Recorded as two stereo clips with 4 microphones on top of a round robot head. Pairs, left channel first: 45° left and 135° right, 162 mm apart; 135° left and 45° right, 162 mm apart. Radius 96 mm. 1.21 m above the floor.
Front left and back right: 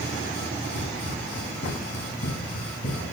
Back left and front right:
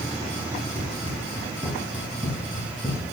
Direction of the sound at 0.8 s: 90° left.